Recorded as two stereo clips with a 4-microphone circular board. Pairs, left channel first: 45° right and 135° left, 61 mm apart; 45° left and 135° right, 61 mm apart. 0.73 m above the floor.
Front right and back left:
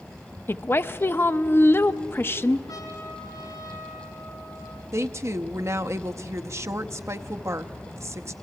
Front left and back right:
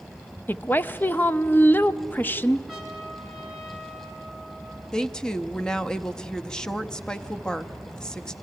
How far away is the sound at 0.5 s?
About 0.6 m.